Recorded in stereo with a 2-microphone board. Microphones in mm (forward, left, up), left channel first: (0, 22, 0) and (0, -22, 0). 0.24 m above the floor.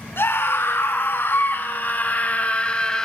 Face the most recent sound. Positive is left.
turn(degrees=15)  # may be behind; listen again after turning